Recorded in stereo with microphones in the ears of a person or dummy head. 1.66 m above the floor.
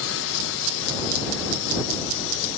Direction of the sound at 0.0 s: 65° left (ahead or behind).